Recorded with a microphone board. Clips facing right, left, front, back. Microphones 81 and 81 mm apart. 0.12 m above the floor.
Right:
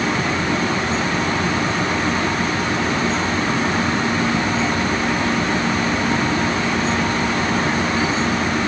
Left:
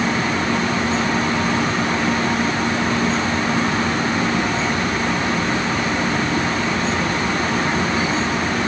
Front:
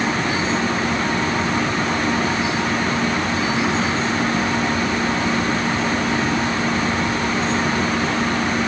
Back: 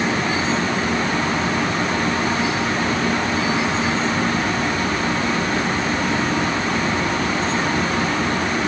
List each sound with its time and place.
Only background noise.